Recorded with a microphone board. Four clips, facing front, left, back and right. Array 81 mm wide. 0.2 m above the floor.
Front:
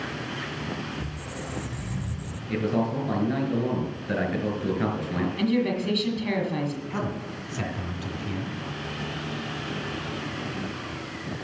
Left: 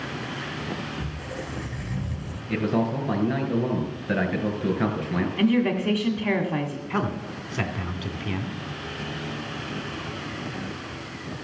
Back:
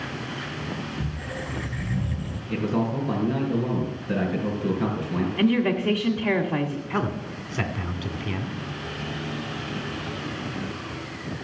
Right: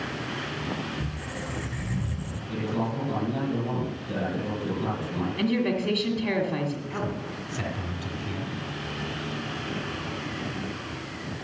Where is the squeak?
170° right, 1.5 m.